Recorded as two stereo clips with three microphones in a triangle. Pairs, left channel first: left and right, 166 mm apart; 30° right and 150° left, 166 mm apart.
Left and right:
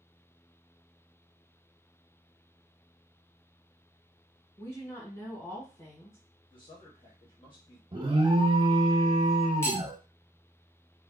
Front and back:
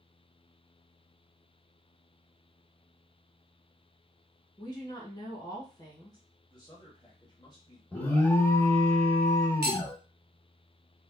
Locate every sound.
4.6 s a woman speaking: 25° left, 1.2 m
6.5 s a man speaking: 30° left, 0.9 m
7.9 s an alarm: 100° right, 0.6 m
9.6 s cutlery clinking: 165° left, 0.6 m